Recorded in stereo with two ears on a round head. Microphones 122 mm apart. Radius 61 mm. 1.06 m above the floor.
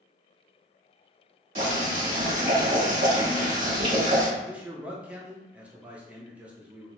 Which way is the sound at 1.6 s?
60° right (ahead or behind).